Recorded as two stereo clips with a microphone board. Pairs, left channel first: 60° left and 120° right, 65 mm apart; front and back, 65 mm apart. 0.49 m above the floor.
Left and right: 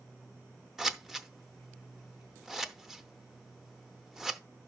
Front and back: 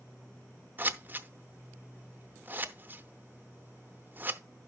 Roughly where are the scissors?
Behind.